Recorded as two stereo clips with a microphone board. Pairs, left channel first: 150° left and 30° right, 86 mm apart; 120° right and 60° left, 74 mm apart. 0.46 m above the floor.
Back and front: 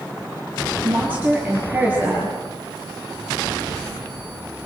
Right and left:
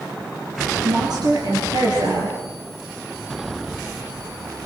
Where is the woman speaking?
40° left, 9 m.